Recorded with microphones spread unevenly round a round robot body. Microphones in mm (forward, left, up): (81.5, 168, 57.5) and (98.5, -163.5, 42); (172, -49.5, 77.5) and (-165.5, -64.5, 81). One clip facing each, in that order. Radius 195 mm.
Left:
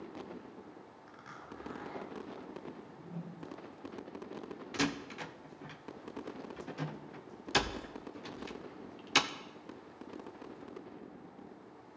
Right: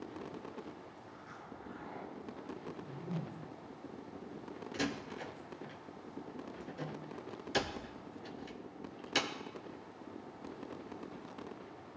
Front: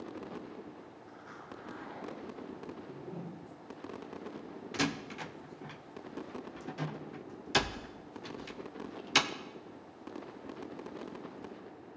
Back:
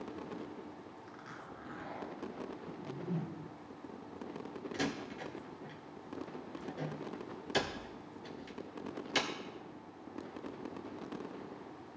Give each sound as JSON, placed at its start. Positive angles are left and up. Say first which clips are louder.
{"t": 1.1, "sound": "a zipper", "louder": "even, front 1 dB", "azimuth_deg": 135, "distance_m": 1.6}
{"t": 2.7, "sound": "a whoosh", "louder": "right 4 dB, back 3 dB", "azimuth_deg": -120, "distance_m": 0.6}
{"t": 4.7, "sound": "a door slam", "louder": "left 3 dB, front 4 dB", "azimuth_deg": 35, "distance_m": 0.5}